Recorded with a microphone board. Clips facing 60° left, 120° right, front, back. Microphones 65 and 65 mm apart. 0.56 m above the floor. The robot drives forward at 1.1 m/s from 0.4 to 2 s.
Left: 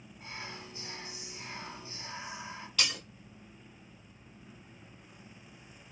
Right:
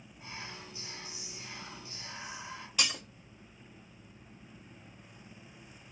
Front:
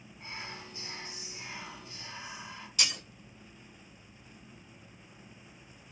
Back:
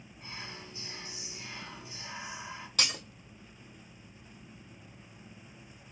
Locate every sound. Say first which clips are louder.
0.2 s whispering: left 1 dB, front 2 dB; 15° left, 1.7 m; by 2.7 s 120° left, 0.7 m
2.8 s breaking glass: even, back 1 dB; 165° left, 1.6 m